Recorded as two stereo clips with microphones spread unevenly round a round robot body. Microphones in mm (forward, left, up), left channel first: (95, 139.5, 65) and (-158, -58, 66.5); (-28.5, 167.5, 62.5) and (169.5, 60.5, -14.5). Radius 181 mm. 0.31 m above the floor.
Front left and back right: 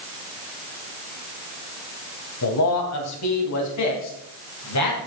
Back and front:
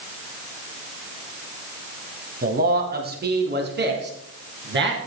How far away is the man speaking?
About 2.5 m.